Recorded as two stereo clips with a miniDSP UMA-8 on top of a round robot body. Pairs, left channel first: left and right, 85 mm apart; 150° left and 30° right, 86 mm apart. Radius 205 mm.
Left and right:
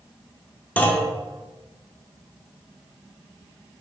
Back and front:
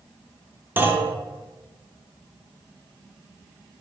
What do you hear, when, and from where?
0.8 s a clunk: 25° left, 0.8 m